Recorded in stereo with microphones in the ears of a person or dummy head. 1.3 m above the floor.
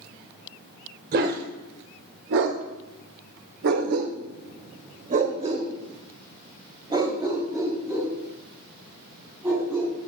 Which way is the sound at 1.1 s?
50° right (ahead or behind).